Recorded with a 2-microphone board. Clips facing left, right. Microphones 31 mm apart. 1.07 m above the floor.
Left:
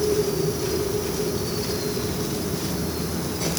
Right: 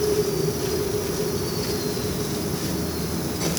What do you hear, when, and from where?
Only background noise.